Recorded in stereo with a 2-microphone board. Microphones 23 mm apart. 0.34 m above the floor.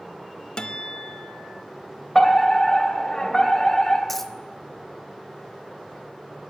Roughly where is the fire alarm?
Left.